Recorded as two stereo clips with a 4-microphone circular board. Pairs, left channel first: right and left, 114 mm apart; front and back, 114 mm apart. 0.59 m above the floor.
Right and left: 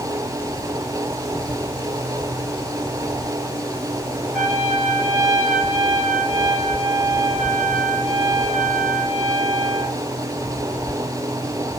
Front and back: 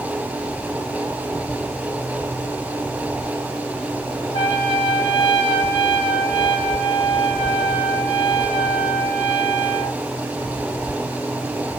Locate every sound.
4.3 s a trumpet: 10° left, 2.5 m